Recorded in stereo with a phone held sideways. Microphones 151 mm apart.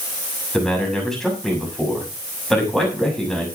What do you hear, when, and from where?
0.5 s a man speaking: 5° left (ahead or behind), 7 m